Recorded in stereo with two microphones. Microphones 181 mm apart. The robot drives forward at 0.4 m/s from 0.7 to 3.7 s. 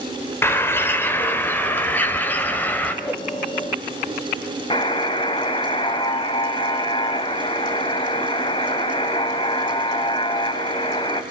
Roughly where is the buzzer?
Left.